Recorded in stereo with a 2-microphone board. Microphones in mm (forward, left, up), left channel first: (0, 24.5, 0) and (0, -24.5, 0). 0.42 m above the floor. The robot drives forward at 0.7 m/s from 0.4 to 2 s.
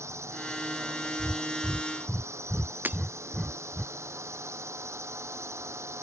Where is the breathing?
5° right (ahead or behind); by 3.9 s centre (ahead or behind).